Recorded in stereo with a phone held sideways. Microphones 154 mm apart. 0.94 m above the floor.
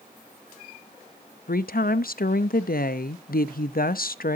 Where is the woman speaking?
70° left (ahead or behind), 0.7 m.